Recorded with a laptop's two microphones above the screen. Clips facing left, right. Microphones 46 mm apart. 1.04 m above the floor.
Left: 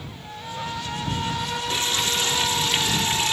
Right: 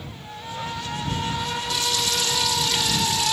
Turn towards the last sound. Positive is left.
turn(degrees=40)  # may be behind; listen again after turning